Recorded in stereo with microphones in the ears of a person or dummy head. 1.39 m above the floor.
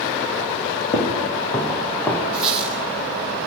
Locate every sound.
0.9 s footsteps: 30° left (ahead or behind), 4 m; by 2.2 s 15° left (ahead or behind), 4 m
2.3 s a squeak: 5° right (ahead or behind), 7 m